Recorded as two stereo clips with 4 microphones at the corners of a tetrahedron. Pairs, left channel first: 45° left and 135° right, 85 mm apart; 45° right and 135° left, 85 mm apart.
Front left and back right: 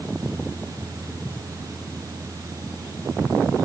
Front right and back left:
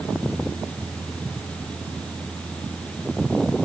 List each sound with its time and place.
Only background noise.